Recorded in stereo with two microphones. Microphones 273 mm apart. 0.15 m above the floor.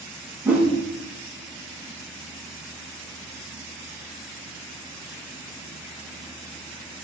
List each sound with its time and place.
0.5 s a whoosh: 5° right (ahead or behind), 5 m